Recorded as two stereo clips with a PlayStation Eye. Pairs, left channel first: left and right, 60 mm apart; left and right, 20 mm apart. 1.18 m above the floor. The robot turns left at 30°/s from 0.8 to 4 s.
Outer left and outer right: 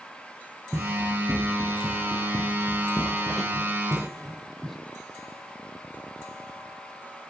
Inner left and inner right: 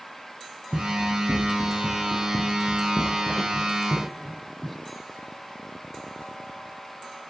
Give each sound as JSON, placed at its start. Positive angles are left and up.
{"t": 0.7, "sound": "running footsteps", "side_deg": -10, "distance_m": 1.9}